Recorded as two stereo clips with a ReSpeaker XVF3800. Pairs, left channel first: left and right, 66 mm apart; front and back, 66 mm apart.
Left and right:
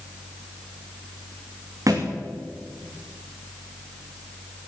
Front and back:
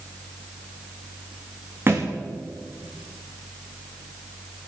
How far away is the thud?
About 3 m.